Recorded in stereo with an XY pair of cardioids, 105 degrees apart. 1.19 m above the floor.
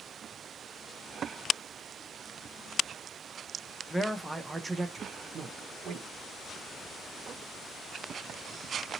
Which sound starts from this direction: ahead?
A man speaking, at 3.9 s.